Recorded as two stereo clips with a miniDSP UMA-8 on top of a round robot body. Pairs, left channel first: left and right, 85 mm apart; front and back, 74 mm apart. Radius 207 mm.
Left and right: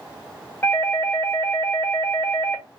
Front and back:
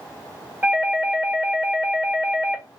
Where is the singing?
No singing in this recording.